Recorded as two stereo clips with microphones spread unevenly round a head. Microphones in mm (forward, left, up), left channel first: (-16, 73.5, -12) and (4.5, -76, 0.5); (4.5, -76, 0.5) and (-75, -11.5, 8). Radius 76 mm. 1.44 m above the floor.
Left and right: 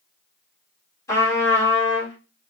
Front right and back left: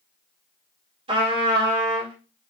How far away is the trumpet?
About 2 m.